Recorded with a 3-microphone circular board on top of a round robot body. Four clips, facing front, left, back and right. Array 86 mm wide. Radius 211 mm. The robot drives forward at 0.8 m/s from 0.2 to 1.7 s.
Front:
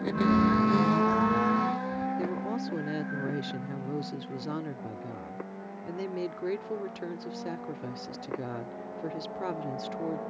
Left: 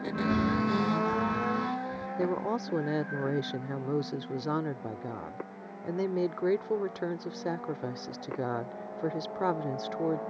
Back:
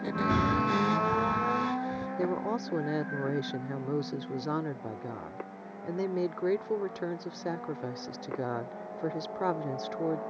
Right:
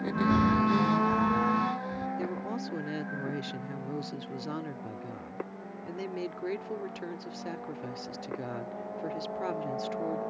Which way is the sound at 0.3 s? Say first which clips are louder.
Right 3 dB, front 3 dB; straight behind.